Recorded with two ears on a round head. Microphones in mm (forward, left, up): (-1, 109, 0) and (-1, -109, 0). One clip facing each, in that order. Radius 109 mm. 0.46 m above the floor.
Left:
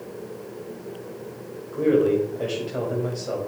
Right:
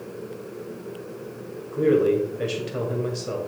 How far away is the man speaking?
About 2.0 m.